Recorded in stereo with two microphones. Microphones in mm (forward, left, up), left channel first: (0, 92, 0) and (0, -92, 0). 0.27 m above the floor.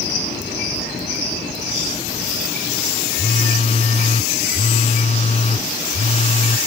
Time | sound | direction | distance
3.1 | a phone buzzing | 35° left (ahead or behind) | ?